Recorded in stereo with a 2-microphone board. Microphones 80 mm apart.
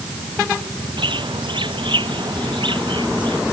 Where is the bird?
80° right.